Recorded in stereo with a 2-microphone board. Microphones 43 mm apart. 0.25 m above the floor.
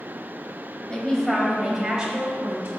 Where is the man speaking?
20° left (ahead or behind), 1.6 m; by 2.7 s 35° right (ahead or behind), 1.9 m.